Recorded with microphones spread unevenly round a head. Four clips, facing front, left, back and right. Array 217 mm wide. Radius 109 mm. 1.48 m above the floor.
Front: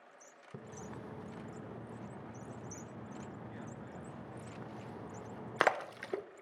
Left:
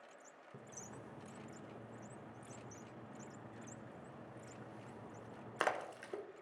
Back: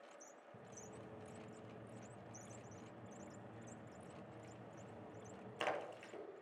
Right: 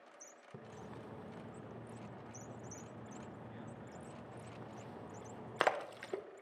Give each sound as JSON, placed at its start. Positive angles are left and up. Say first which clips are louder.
{"t": 0.5, "sound": "a splash", "louder": "right 4 dB, front 10 dB", "azimuth_deg": -25, "distance_m": 0.6}